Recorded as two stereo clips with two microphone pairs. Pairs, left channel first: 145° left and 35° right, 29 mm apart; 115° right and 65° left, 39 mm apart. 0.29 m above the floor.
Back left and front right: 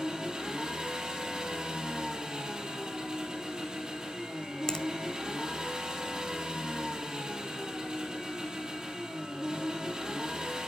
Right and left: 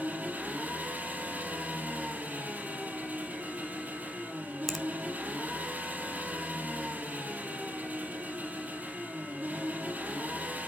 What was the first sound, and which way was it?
An engine running, 20° left.